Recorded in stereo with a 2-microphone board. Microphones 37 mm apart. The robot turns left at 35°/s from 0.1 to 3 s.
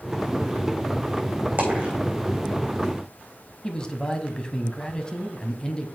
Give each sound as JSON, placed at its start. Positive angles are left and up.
{"t": 1.6, "sound": "a dropped coin", "side_deg": -45, "distance_m": 3.5}
{"t": 3.6, "sound": "a man speaking", "side_deg": 20, "distance_m": 1.0}